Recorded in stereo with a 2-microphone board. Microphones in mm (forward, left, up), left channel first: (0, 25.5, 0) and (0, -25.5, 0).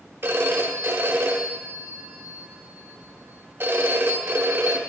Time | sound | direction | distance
0.2 | a phone ringing | 45° right (ahead or behind) | 1.1 m